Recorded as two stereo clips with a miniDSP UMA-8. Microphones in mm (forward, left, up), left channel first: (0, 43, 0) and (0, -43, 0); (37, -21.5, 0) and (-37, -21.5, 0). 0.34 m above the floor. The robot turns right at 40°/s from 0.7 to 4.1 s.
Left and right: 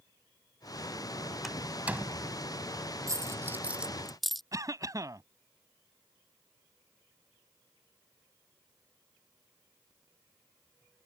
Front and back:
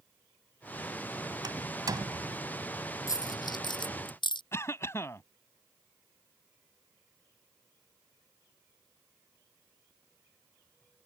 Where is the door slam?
Straight behind; by 2.4 s 140° right.